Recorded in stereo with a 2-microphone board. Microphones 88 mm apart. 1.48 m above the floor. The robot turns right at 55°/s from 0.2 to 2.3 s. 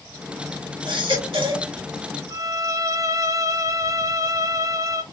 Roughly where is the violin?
Right.